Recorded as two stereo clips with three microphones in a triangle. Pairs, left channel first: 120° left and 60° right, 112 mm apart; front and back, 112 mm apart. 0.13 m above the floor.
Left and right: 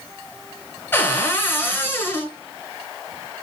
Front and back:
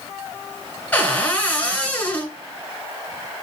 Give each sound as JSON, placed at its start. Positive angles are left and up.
{"t": 0.9, "sound": "a cupboard door", "azimuth_deg": 65, "distance_m": 1.3}